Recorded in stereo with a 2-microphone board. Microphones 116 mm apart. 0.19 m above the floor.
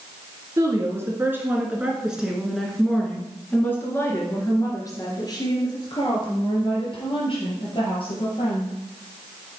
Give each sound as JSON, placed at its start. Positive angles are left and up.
{"t": 0.6, "sound": "a woman speaking", "side_deg": -30, "distance_m": 2.5}